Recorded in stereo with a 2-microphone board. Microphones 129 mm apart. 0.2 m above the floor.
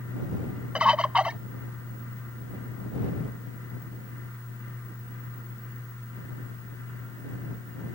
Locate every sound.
0.8 s a bird: 10° right (ahead or behind)